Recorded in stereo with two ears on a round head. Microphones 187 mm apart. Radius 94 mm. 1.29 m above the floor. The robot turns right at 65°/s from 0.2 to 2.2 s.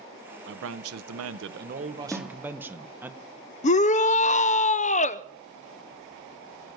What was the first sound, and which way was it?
A man speaking, 125° right.